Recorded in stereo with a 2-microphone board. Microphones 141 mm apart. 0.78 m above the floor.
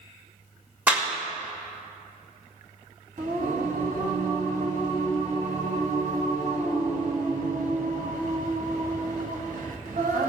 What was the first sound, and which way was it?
A clap, 10° right (ahead or behind).